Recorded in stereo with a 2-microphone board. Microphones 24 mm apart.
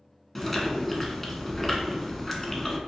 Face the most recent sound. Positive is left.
turn(degrees=5)  # may be behind; listen again after turning